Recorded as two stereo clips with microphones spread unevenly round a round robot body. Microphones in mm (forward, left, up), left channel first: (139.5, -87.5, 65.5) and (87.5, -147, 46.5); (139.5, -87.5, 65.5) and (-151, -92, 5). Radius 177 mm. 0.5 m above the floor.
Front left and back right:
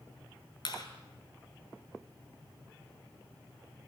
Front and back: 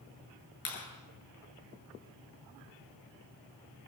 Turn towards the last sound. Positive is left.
turn(degrees=25)